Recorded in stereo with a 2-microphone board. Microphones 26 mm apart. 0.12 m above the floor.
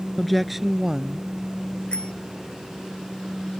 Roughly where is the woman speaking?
Centre.